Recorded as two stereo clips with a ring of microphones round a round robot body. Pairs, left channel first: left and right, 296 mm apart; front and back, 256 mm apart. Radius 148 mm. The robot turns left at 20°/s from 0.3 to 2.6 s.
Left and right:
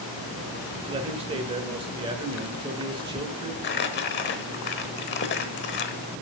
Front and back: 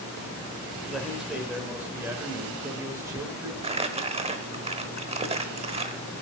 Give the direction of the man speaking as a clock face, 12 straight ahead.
3 o'clock.